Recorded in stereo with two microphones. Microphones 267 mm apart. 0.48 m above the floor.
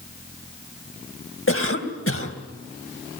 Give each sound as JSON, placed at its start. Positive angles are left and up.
{"t": 1.5, "sound": "a cough", "side_deg": 50, "distance_m": 3.0}